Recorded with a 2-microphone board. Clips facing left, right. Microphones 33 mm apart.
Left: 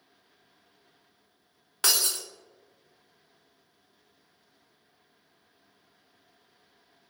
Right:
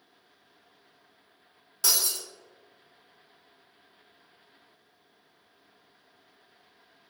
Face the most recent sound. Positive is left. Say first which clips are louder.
# left 2 dB
turn(degrees=50)  # may be behind; listen again after turning